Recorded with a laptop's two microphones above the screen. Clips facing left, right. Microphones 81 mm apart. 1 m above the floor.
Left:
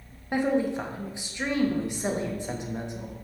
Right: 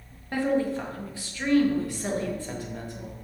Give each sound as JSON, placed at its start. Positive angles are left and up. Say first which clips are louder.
{"t": 0.3, "sound": "a woman speaking", "louder": "even", "side_deg": 20, "distance_m": 0.8}